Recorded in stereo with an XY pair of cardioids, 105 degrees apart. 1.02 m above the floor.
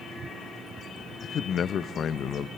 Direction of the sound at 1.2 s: 55° left.